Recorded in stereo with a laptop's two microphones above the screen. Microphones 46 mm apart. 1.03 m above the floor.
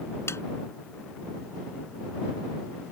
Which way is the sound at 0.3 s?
65° left (ahead or behind).